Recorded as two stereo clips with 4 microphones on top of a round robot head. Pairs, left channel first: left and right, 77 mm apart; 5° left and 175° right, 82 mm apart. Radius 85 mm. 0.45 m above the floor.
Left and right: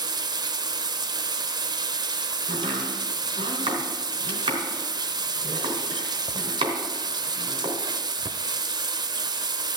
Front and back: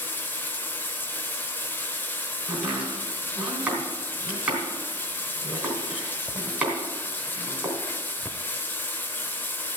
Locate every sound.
0.0 s running water: 65° right, 0.8 m
2.5 s chopping: 95° right, 3.5 m